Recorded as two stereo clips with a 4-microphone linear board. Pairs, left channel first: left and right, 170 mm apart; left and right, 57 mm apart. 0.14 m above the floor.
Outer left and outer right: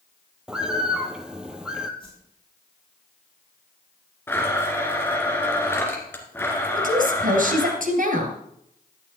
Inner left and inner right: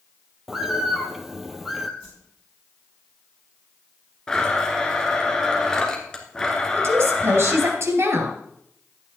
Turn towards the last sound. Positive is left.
turn(degrees=-55)  # may be behind; listen again after turning